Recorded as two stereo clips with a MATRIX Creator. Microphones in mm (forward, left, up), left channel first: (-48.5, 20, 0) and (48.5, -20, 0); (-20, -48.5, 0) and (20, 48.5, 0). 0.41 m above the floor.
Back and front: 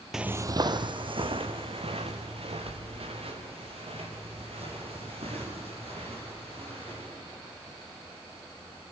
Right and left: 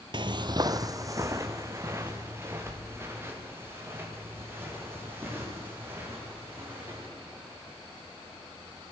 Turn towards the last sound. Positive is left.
turn(degrees=0)